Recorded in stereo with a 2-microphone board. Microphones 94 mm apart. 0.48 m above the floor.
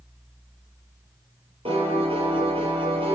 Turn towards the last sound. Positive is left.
turn(degrees=-80)